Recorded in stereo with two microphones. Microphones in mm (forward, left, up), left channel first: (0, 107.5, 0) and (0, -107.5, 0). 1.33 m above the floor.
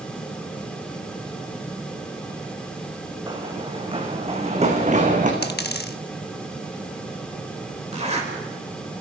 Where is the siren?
No siren in this recording.